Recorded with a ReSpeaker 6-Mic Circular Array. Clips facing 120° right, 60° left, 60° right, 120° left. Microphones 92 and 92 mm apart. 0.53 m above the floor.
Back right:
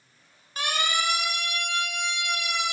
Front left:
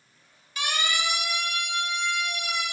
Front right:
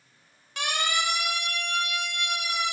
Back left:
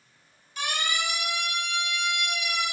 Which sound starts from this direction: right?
A siren, at 0.6 s.